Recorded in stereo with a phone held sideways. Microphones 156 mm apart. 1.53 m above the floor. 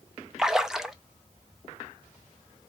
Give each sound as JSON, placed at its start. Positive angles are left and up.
{"t": 0.4, "sound": "a splash", "side_deg": -5, "distance_m": 0.5}